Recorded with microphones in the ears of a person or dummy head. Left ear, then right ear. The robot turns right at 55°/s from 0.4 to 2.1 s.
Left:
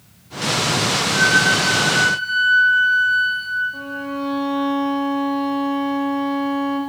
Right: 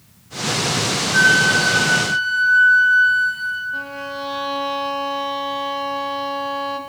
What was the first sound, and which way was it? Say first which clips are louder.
A flute: right 2 dB; 100° right.